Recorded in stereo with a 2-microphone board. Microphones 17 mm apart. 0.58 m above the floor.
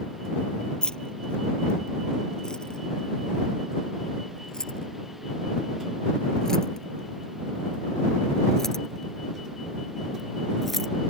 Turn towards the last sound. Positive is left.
turn(degrees=10)  # may be behind; listen again after turning